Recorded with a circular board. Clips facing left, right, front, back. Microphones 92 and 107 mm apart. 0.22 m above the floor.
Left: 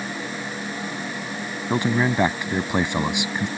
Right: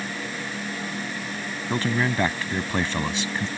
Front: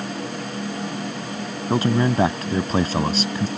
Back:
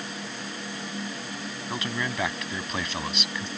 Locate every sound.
1.7 s a man speaking: 25° left